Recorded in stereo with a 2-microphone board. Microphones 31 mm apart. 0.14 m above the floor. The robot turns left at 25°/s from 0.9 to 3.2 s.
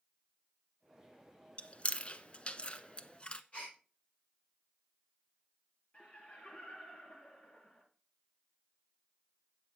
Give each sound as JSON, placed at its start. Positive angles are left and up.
{"t": 1.6, "sound": "chewing", "side_deg": 40, "distance_m": 0.6}
{"t": 3.5, "sound": "a gasp", "side_deg": 50, "distance_m": 6.0}
{"t": 5.9, "sound": "laughter", "side_deg": 45, "distance_m": 3.5}